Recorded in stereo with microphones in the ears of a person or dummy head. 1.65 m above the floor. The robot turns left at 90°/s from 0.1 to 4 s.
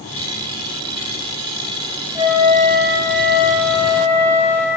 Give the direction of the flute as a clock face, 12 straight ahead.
1 o'clock.